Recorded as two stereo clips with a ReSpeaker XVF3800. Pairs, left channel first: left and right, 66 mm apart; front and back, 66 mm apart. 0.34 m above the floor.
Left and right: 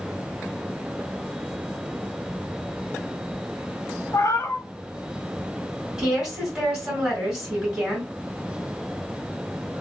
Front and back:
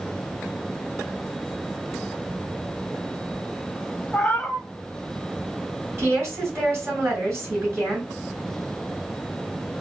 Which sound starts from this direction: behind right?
A woman speaking, at 6.0 s.